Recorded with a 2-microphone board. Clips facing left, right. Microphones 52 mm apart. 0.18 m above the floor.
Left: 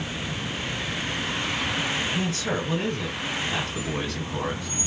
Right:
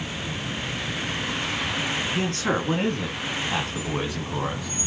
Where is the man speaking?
50° right (ahead or behind), 2.0 m; by 4.7 s 10° right (ahead or behind), 1.3 m.